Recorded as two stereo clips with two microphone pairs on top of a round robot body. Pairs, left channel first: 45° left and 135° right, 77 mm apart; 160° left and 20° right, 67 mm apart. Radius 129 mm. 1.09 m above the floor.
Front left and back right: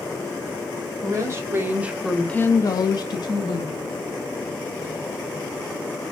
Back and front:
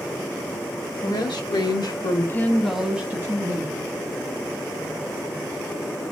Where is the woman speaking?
170° left, 1.2 m; by 4.0 s 30° left, 1.4 m.